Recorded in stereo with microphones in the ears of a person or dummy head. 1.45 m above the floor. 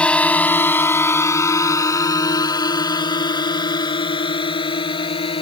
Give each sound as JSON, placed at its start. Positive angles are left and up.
{"t": 0.0, "sound": "a drone", "side_deg": 10}